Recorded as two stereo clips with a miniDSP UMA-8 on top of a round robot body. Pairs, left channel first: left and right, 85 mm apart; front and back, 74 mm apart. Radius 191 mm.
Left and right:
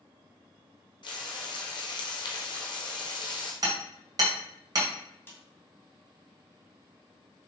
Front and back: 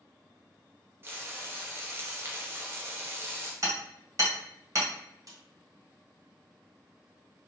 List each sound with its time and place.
1.0 s frying: 120° left, 1.0 m
3.6 s hammering: 135° right, 2.5 m
5.3 s a snare drum: 150° left, 2 m